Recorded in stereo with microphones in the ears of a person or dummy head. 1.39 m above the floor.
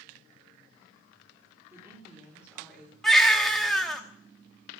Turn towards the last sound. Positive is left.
turn(degrees=0)  # may be behind; listen again after turning